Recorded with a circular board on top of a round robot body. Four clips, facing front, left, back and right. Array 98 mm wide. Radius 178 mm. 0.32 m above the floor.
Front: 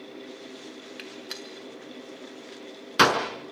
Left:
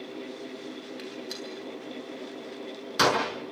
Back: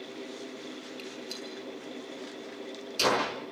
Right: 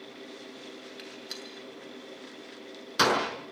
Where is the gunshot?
Straight ahead, 6 m.